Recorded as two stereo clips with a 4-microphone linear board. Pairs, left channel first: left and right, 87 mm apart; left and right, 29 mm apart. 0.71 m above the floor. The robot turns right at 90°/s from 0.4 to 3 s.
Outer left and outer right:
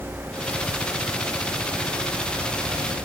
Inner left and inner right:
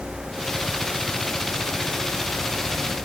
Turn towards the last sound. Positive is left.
No sound to turn to.